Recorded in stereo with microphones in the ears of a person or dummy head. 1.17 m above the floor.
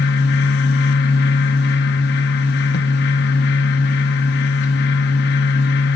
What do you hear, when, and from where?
0.0 s a fan: 55° left (ahead or behind), 1.0 m